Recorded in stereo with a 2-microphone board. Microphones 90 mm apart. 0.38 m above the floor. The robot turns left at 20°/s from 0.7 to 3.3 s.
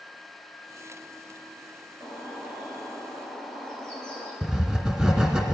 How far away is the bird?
About 4.5 m.